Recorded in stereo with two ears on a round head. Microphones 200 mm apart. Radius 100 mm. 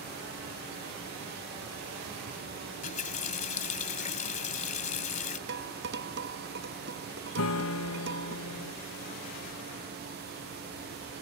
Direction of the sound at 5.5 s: 55° right (ahead or behind).